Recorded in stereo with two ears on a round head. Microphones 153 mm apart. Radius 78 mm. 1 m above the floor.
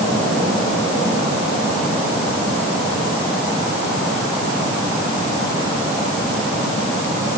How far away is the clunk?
No clunk in this recording.